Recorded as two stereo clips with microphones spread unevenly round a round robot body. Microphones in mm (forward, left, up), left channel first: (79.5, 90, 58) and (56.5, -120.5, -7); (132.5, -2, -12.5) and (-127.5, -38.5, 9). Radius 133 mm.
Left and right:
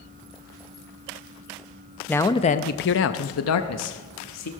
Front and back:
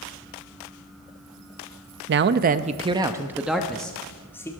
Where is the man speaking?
170° right, 0.5 m; by 4.5 s 90° left, 1.2 m.